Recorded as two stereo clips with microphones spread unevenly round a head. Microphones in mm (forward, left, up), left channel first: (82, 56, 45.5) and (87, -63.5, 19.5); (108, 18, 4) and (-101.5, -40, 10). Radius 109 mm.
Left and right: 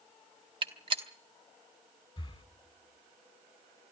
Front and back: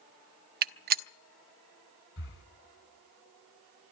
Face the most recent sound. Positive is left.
turn(degrees=45)